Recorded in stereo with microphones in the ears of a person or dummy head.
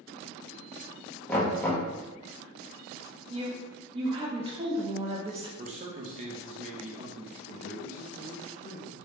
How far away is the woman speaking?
About 0.5 m.